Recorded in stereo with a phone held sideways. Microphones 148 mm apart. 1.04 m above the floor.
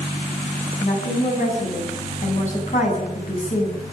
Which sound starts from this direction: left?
A woman speaking, at 0.8 s.